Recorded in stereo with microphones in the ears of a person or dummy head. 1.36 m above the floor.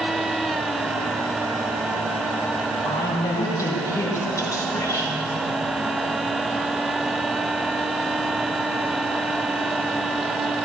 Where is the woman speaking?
20° left (ahead or behind), 3 m.